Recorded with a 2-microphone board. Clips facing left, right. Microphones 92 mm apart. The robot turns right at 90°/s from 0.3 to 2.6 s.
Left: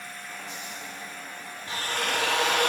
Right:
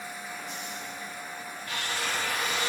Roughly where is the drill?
Ahead left.